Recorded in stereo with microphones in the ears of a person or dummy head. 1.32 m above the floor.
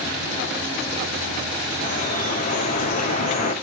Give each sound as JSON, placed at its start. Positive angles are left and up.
{"t": 1.8, "sound": "dripping", "side_deg": 45, "distance_m": 2.0}